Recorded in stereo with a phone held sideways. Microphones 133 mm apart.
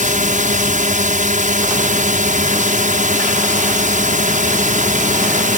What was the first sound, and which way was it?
A drone, 75° right (ahead or behind).